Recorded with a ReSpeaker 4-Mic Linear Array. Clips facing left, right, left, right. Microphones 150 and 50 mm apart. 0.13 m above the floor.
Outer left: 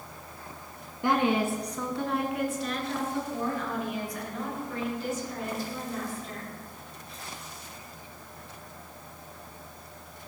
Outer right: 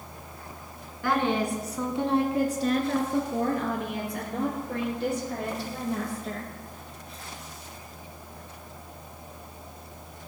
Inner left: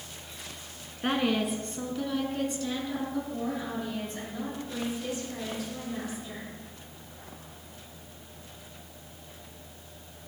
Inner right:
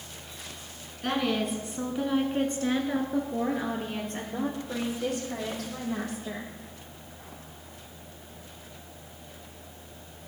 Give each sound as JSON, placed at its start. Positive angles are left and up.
{"t": 1.0, "sound": "a woman speaking", "side_deg": 25, "distance_m": 1.2}